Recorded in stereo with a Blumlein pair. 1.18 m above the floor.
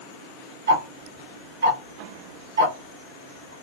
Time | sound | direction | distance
0.7 | ticking | 65° right | 1.3 m